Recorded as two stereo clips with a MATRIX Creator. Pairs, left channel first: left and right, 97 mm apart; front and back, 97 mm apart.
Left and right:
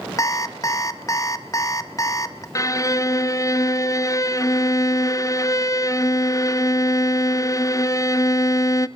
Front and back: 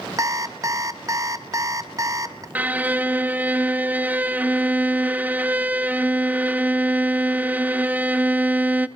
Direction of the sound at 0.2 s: 135° left.